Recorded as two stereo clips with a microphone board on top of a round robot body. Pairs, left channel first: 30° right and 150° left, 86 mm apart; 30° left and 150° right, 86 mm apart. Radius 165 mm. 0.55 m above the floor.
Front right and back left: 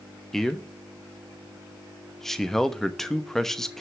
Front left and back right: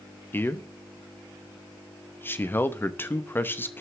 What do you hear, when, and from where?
0.3 s a man speaking: 50° left, 1.3 m